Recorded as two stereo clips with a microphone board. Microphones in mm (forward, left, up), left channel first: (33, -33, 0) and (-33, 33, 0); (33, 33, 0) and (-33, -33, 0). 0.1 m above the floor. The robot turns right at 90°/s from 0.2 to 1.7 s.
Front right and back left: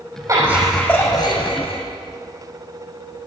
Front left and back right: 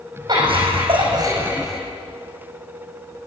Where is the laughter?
175° right, 5 m; by 1.8 s 50° right, 5 m.